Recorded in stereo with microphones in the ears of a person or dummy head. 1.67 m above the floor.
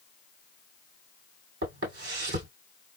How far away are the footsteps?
About 3 m.